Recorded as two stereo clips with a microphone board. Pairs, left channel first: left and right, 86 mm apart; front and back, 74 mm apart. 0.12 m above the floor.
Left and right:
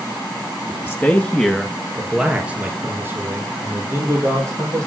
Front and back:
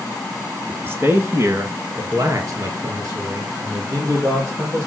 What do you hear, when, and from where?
0.7 s a man speaking: 130° left, 1.8 m; by 4.9 s 140° right, 4 m